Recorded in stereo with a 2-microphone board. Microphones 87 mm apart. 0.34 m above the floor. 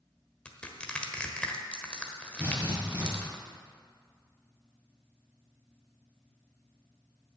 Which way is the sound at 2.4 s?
25° right (ahead or behind).